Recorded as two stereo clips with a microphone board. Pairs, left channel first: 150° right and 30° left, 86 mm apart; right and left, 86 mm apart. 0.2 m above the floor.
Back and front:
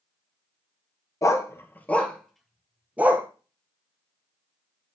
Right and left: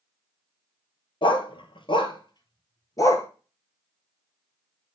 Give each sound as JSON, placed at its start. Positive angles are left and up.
{"t": 1.2, "sound": "a dog barking", "azimuth_deg": -100, "distance_m": 1.1}